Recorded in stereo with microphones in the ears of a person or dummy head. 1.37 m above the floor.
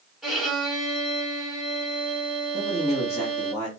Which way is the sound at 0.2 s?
Centre (ahead or behind).